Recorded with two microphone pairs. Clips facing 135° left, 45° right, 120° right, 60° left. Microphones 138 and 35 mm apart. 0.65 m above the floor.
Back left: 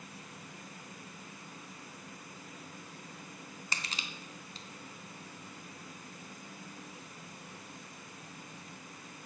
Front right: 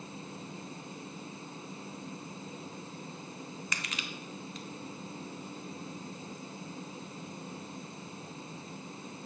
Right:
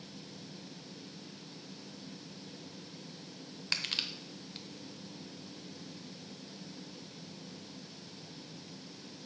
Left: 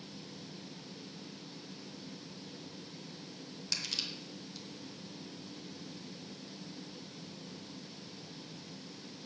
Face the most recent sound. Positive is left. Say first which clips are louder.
# front right 2 dB, right 4 dB
turn(degrees=-165)